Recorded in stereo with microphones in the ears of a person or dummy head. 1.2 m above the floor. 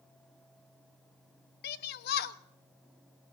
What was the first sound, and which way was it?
A shout, 50° left (ahead or behind).